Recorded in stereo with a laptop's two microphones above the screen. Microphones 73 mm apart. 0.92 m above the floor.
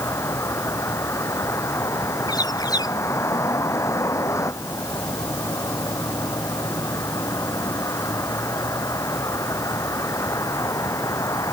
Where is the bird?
70° left (ahead or behind).